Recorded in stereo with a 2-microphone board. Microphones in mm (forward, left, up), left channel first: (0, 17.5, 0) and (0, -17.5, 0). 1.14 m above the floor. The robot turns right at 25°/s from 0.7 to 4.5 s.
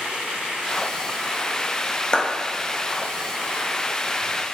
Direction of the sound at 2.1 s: 30° left (ahead or behind).